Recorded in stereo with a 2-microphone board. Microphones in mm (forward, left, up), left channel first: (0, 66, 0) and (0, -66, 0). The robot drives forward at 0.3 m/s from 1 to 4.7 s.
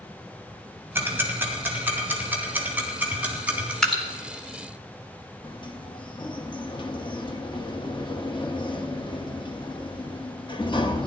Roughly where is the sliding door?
Left.